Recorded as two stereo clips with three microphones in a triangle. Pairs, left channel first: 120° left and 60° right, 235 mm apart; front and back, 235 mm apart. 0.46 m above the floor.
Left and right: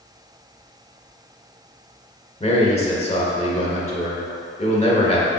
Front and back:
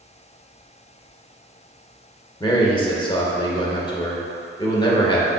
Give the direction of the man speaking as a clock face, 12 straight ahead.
10 o'clock.